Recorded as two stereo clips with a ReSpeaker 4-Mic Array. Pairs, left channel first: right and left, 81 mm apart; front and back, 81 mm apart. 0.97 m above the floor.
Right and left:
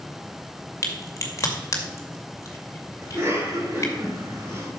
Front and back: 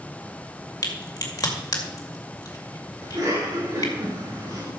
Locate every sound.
0.8 s a crack: 40° right, 2 m
3.0 s a cough: 145° left, 6 m